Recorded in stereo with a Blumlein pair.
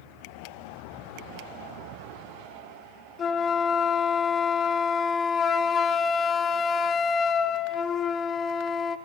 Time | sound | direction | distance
3.2 | a flute | 25° left | 0.6 m